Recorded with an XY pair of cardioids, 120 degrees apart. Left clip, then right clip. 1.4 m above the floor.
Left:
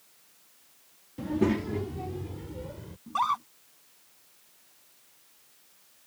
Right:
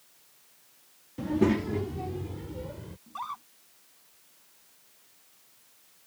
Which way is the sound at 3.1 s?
50° left.